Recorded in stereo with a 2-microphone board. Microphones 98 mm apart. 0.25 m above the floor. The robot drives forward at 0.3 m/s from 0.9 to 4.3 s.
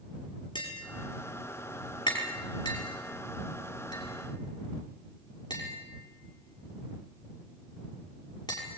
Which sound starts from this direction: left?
Tapping, at 0.6 s.